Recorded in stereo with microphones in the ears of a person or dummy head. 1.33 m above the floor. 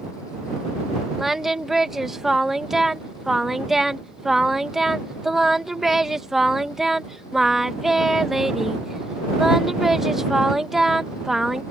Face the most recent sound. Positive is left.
turn(degrees=-5)  # may be behind; listen again after turning